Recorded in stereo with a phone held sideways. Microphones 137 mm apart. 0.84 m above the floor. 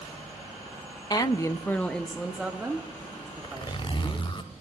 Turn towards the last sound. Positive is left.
turn(degrees=40)  # may be behind; listen again after turning